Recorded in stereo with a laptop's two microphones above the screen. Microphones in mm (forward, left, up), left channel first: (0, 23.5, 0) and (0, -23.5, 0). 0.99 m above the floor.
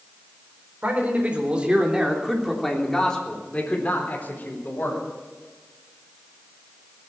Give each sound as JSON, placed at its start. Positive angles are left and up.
{"t": 0.8, "sound": "a man speaking", "side_deg": -40, "distance_m": 4.5}